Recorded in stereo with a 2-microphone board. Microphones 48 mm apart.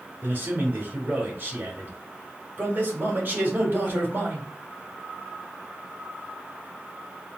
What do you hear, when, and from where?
0.2 s a man speaking: 50° right (ahead or behind), 2 m